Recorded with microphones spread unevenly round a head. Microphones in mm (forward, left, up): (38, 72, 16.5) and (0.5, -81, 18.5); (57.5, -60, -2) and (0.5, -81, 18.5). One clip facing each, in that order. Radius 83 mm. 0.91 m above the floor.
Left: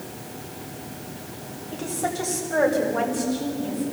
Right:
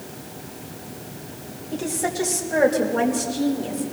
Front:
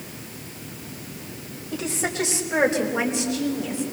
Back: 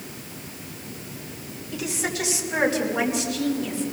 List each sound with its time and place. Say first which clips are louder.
1.7 s a woman speaking: right 2 dB, front 2 dB; 30° right, 4.5 m; by 3.8 s 45° right, 5 m